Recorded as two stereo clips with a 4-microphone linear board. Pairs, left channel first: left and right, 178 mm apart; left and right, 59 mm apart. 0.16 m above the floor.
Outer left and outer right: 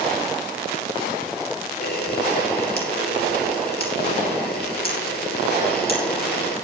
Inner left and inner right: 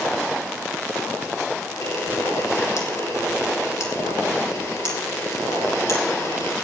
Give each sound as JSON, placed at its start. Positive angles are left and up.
{"t": 1.8, "sound": "a camera shutter", "side_deg": 60, "distance_m": 4.0}